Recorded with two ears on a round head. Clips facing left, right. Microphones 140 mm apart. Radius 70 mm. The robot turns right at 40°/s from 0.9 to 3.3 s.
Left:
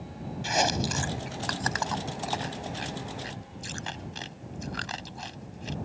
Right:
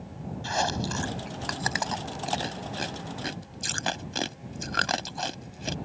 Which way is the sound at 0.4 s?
20° left (ahead or behind).